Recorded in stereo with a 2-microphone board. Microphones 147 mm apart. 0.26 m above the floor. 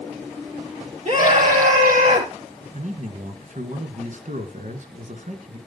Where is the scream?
55° right (ahead or behind), 6 m; by 2.3 s 60° right (ahead or behind), 5.5 m.